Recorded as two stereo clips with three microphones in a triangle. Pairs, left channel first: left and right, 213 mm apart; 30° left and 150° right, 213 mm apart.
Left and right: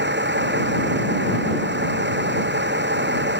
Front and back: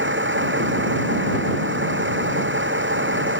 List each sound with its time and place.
0.0 s a vehicle: 125° right